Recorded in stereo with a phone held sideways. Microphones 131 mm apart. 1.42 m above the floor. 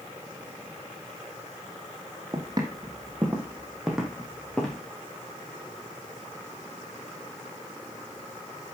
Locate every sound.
2.3 s footsteps: 35° right (ahead or behind), 3.5 m; by 4.8 s 5° left (ahead or behind), 4.5 m